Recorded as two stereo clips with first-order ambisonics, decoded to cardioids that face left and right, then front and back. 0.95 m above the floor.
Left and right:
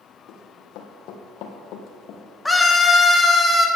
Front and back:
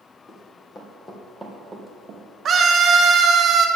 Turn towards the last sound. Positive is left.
turn(degrees=170)